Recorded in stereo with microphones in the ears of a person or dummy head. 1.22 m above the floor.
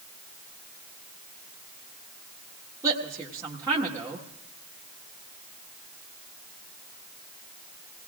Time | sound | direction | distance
2.8 | a woman speaking | 15° right (ahead or behind) | 1.6 m